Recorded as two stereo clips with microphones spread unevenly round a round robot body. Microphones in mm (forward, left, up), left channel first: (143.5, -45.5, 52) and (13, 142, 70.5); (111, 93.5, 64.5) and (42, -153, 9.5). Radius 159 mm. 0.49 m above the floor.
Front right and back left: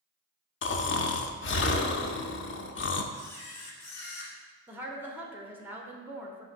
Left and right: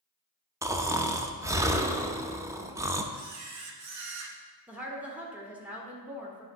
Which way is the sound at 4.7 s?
155° right.